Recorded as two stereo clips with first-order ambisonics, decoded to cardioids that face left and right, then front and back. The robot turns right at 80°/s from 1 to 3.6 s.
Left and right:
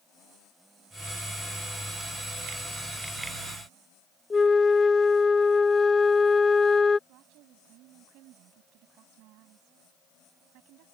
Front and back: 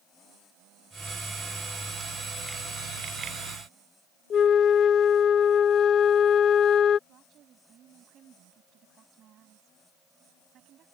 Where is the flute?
30° left.